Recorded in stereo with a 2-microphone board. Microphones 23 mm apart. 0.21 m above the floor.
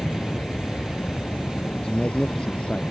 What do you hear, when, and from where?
0.0 s an aircraft: 65° left (ahead or behind); by 2.9 s 75° left (ahead or behind)
1.7 s a man speaking: 45° left (ahead or behind)